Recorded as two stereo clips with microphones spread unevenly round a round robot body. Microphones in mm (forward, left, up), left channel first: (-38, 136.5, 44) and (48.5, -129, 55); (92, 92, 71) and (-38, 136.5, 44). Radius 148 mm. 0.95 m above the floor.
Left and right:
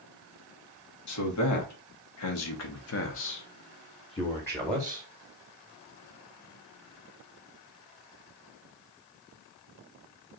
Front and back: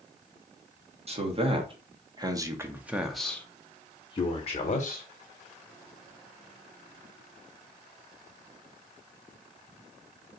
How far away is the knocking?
No knocking in this recording.